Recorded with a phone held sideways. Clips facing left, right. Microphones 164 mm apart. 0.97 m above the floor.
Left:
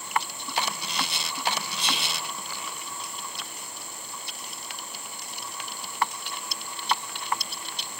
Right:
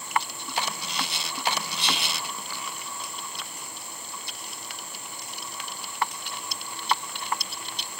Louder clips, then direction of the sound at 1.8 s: Right 1 dB; 65° right (ahead or behind).